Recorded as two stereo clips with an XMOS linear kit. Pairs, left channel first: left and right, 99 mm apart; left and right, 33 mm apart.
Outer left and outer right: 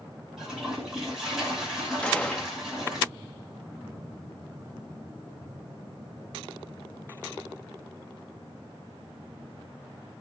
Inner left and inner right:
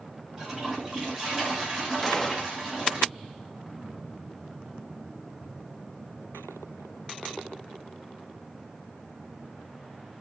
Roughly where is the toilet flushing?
Centre.